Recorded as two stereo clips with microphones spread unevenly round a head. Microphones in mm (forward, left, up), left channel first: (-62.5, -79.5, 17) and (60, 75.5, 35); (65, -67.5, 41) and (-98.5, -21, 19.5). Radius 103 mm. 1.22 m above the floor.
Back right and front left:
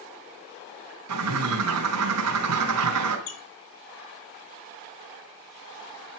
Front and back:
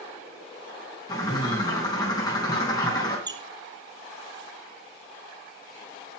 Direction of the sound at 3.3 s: 130° right.